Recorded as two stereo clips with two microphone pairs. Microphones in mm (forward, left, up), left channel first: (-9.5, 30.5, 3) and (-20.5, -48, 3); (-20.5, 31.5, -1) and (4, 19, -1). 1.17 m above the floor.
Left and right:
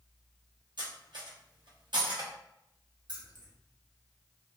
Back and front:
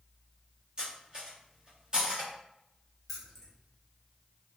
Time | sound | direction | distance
0.8 | cutlery clinking | 85° right | 1.2 m
3.1 | keys jangling | 115° right | 1.1 m